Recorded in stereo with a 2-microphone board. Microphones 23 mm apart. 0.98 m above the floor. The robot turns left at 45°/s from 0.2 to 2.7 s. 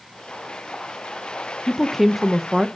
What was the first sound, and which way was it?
A woman speaking, 15° left.